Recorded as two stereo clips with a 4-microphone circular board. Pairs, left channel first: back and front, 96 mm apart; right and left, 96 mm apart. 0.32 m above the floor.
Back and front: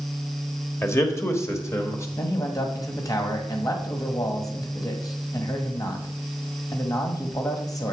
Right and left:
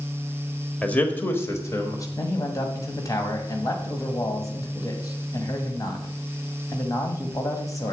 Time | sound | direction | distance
0.8 | a man speaking | 155° right | 1.1 m
2.2 | a man speaking | 140° right | 1.6 m